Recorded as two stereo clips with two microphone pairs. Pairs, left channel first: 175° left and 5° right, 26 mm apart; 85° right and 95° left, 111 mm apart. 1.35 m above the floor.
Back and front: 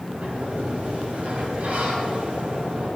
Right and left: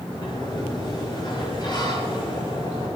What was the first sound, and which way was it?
A sliding door, 35° right.